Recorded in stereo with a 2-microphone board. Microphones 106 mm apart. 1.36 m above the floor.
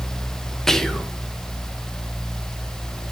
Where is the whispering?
5° left (ahead or behind), 1.2 m.